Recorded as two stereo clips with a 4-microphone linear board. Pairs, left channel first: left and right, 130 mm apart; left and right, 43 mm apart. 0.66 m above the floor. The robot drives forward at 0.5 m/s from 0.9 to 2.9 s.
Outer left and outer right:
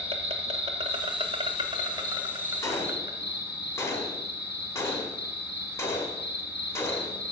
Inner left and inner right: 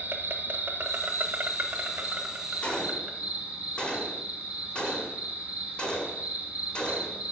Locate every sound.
0.0 s an insect: 50° right (ahead or behind), 1.0 m; by 7.3 s 25° right (ahead or behind), 1.8 m
2.6 s a gunshot: 25° left (ahead or behind), 1.2 m